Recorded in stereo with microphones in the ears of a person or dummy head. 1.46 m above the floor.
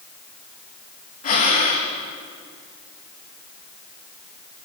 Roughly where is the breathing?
Left.